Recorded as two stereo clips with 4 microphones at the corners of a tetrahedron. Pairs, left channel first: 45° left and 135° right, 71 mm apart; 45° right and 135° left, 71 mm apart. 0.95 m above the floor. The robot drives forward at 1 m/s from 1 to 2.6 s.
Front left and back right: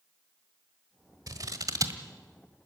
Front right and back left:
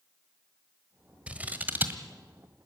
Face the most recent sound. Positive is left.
turn(degrees=-170)